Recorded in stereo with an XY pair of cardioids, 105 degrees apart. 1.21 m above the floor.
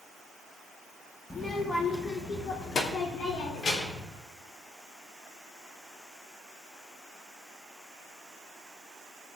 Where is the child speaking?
25° left, 1.6 m; by 4.1 s 60° left, 3 m.